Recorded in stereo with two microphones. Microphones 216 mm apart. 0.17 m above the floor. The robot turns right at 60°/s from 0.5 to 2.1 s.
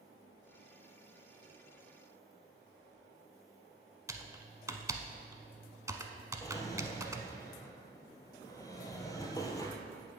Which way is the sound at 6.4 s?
15° left (ahead or behind).